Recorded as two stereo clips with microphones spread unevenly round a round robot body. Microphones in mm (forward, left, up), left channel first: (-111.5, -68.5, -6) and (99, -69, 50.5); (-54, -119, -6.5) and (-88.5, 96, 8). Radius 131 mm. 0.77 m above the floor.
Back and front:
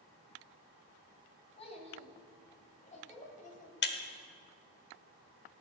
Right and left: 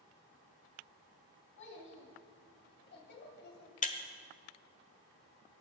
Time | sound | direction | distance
1.6 | a child speaking | 115° right | 3.5 m
3.8 | breaking glass | 140° right | 1.2 m